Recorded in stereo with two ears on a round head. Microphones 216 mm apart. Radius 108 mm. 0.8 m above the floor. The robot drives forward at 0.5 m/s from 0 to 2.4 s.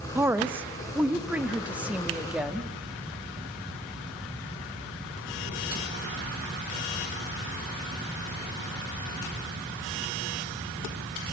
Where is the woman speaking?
10° right (ahead or behind), 0.9 m; by 2.7 s 5° right (ahead or behind), 1.7 m.